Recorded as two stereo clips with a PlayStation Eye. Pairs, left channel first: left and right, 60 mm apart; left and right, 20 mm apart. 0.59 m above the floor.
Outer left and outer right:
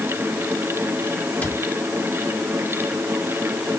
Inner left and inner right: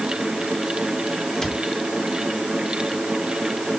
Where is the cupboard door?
30° left (ahead or behind), 3.5 m.